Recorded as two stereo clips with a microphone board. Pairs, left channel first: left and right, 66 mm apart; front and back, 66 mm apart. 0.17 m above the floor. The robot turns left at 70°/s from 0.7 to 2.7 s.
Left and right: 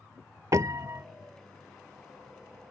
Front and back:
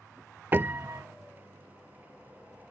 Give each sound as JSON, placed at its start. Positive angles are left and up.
{"t": 0.5, "sound": "a piano", "azimuth_deg": -120}